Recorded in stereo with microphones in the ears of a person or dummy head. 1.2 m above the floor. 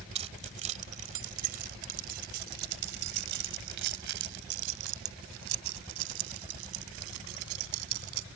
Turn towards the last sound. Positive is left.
turn(degrees=-85)